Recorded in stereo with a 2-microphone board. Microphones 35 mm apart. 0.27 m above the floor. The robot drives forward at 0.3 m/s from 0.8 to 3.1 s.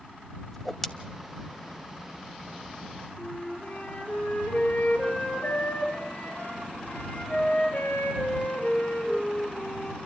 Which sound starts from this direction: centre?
A whoosh, at 0.5 s.